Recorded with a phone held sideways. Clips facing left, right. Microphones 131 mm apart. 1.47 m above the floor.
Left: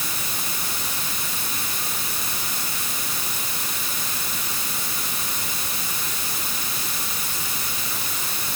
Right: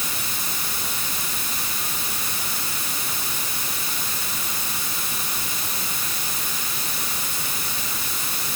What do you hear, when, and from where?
Only background noise.